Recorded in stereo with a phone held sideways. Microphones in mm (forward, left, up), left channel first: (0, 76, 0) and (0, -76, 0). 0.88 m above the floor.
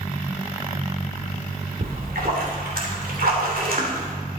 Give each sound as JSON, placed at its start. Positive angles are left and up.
{"t": 1.8, "sound": "a splash", "side_deg": -75, "distance_m": 2.5}